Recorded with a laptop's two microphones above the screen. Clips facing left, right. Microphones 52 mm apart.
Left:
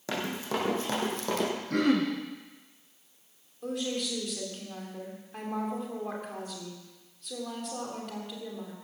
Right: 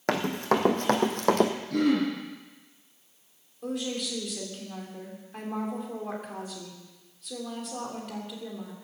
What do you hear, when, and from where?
0.1 s running footsteps: 65° right (ahead or behind), 2.5 m; by 1.5 s 60° right (ahead or behind), 1.9 m
1.7 s throat clearing: 55° left (ahead or behind), 5 m
3.6 s a woman speaking: centre (ahead or behind), 2.5 m